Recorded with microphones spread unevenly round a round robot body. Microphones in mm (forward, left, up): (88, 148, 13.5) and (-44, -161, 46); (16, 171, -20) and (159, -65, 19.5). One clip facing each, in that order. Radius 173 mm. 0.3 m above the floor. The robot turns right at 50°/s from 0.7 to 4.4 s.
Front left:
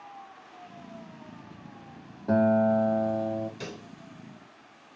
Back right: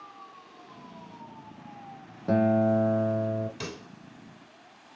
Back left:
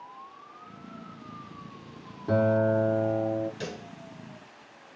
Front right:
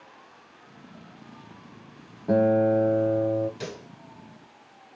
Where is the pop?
150° right, 1.6 m; by 3.9 s 135° right, 1.6 m.